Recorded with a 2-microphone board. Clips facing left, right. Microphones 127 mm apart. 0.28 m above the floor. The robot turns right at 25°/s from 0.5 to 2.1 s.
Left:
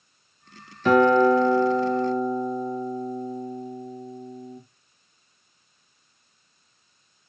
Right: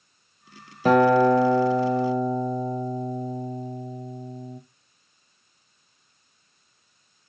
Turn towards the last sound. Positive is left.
turn(degrees=-80)